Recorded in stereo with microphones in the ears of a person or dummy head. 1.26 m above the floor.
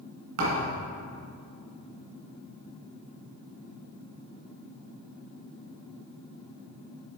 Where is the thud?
55° right (ahead or behind), 2.0 m.